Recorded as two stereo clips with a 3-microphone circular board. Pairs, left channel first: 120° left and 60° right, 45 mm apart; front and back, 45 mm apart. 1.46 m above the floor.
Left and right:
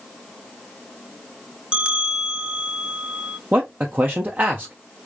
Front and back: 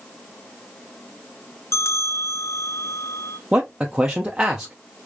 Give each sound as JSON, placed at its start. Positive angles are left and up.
{"t": 1.7, "sound": "a bell", "azimuth_deg": 10, "distance_m": 0.6}
{"t": 3.5, "sound": "a man speaking", "azimuth_deg": -110, "distance_m": 0.6}